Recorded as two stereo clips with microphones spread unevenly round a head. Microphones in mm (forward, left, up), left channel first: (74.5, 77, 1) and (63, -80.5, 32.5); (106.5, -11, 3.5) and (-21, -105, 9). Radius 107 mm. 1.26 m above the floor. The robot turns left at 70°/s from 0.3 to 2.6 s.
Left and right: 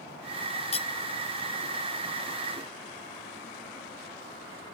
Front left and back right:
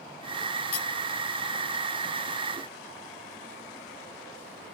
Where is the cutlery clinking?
35° left; by 0.9 s 25° left.